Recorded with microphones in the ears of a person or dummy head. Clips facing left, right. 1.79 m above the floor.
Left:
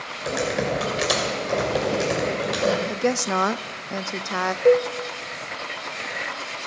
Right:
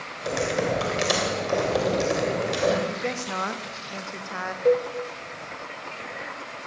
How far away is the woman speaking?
About 0.6 m.